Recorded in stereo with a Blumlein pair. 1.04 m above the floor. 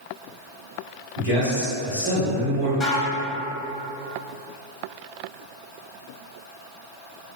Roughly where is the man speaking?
Ahead left.